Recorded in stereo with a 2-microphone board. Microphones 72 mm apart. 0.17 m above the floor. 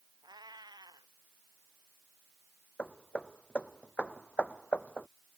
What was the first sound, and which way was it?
A cat meowing, 70° right (ahead or behind).